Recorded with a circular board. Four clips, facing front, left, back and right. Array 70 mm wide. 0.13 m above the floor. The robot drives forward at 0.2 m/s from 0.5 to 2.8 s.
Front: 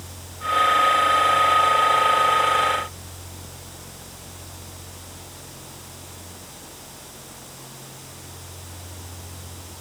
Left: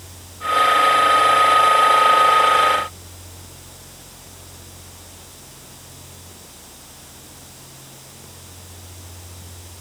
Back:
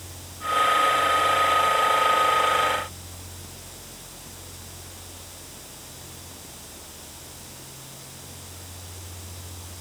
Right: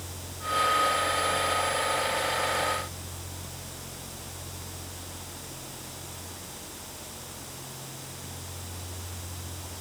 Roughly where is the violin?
No violin in this recording.